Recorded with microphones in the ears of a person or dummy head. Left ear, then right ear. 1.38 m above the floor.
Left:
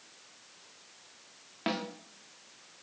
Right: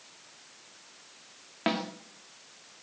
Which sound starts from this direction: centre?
A snare drum, at 1.7 s.